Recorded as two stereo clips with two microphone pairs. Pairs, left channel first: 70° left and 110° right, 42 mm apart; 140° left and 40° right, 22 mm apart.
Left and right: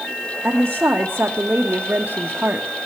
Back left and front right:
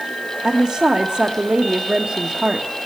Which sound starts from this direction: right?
A woman speaking, at 0.4 s.